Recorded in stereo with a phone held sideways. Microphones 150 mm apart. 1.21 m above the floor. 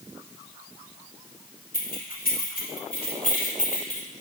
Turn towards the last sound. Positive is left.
turn(degrees=55)  # may be behind; listen again after turning